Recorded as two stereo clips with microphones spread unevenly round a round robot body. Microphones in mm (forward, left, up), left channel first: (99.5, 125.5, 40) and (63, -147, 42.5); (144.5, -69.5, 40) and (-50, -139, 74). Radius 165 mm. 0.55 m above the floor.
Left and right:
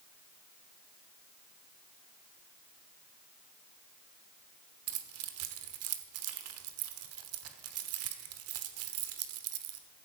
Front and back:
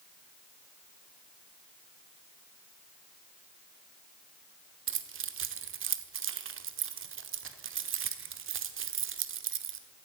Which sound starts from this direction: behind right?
Keys jangling, at 4.9 s.